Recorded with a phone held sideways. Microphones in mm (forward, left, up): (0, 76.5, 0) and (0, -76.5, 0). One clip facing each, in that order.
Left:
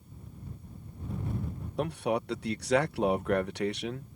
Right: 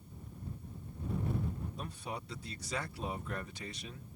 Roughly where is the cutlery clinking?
I don't hear cutlery clinking.